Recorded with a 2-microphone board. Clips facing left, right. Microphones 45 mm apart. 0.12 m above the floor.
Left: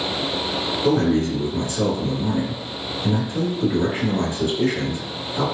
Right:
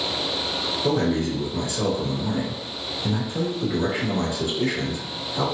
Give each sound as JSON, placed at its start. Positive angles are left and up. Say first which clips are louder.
{"t": 0.8, "sound": "a man speaking", "louder": "left 4 dB", "side_deg": 15, "distance_m": 1.5}